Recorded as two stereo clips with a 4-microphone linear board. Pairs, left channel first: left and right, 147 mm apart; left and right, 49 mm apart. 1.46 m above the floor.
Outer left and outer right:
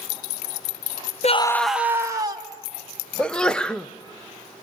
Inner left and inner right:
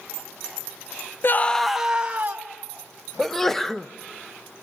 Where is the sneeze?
5° left (ahead or behind), 0.7 m.